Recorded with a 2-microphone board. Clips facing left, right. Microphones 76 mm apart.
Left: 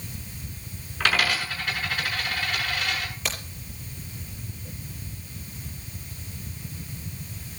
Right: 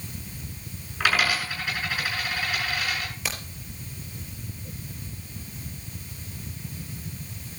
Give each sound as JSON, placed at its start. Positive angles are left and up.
{"t": 1.0, "sound": "a dropped coin", "side_deg": -5, "distance_m": 6.5}
{"t": 3.2, "sound": "a crack", "side_deg": 0, "distance_m": 5.0}